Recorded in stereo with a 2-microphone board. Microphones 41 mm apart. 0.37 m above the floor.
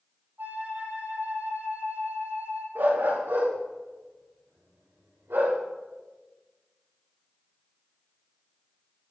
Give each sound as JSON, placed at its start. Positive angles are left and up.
{"t": 0.4, "sound": "a flute", "side_deg": -50, "distance_m": 5.0}
{"t": 2.8, "sound": "a dog barking", "side_deg": -75, "distance_m": 10.0}